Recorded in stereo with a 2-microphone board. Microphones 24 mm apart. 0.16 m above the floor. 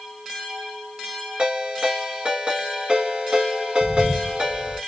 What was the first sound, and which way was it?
A ringtone, 45° right (ahead or behind).